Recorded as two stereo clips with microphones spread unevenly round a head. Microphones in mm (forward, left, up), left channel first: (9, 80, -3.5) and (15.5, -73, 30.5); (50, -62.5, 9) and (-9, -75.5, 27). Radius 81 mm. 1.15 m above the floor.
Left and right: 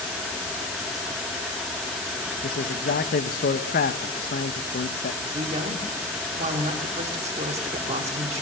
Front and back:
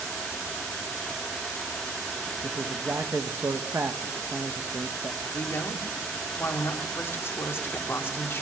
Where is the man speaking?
120° left, 1.1 m.